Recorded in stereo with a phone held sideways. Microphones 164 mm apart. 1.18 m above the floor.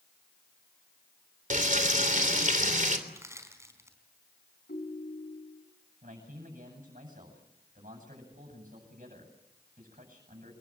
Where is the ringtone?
80° left, 4 m.